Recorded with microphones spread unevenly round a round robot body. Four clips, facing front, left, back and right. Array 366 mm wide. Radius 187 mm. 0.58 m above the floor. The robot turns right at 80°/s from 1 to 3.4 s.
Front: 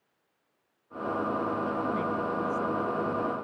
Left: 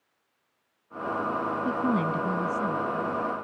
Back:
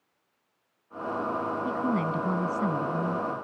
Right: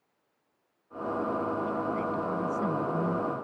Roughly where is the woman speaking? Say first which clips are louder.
Left 4 dB, back 2 dB; left.